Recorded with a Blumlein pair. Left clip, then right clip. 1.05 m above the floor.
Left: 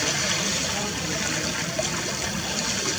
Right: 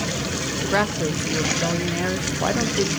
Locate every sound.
0.7 s a woman speaking: 45° right, 1.0 m